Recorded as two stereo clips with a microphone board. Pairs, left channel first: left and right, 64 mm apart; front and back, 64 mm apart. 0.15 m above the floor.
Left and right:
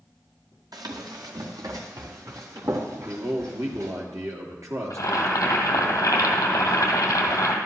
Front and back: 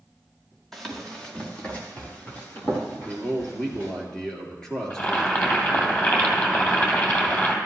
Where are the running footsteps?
85° right, 2.5 m; by 3.9 s 55° right, 5 m.